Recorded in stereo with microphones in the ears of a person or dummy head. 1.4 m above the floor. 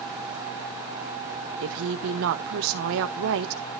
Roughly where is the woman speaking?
Right.